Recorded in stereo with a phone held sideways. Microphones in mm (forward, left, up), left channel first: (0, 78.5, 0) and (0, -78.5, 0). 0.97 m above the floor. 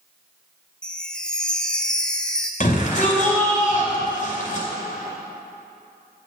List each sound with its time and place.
0.8 s a chime: 5° left (ahead or behind), 1.0 m
2.6 s a shout: 55° left (ahead or behind), 4.5 m